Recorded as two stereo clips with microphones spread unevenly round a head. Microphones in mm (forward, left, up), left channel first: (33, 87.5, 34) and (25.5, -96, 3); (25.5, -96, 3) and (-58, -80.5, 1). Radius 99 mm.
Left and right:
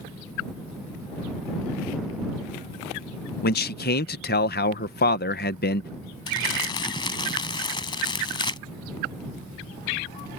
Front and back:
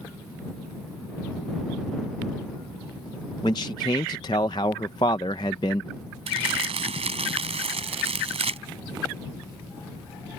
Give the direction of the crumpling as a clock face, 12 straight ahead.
7 o'clock.